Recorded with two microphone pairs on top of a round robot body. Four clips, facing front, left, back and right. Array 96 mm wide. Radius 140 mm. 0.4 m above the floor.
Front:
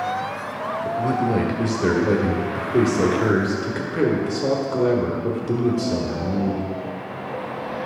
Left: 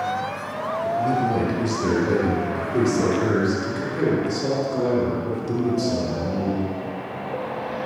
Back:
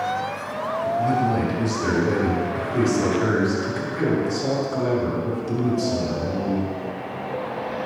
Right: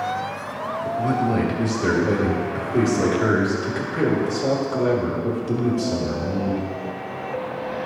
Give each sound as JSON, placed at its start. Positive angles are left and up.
{"t": 0.8, "sound": "a man speaking", "azimuth_deg": -15, "distance_m": 1.9}